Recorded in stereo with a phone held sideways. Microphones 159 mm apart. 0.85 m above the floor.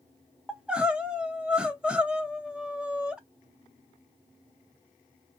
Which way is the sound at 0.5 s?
5° right (ahead or behind).